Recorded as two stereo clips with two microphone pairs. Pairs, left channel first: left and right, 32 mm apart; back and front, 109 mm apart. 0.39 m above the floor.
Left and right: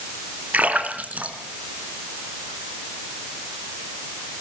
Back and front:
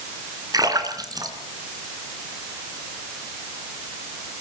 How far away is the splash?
About 3.5 m.